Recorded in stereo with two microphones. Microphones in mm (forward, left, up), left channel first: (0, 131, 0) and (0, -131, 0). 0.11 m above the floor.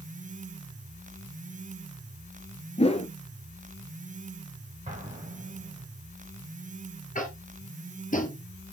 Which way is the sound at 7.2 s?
30° left (ahead or behind).